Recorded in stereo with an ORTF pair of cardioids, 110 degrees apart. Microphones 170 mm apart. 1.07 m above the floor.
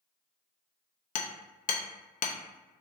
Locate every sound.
1.1 s hammering: 45° left, 0.6 m